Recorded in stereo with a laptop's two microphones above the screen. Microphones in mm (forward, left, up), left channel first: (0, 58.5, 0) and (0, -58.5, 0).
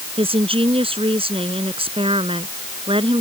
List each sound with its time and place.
0.2 s a woman speaking: 55° right (ahead or behind)